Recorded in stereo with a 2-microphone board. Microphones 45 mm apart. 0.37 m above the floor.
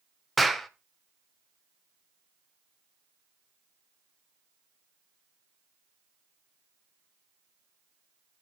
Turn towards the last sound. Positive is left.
turn(degrees=5)  # may be behind; listen again after turning